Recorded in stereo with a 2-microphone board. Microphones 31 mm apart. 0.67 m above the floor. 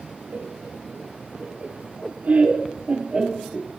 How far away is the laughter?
About 2.5 m.